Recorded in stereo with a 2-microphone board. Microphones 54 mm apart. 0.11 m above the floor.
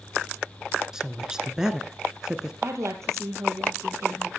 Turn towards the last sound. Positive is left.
turn(degrees=-60)  # may be behind; listen again after turning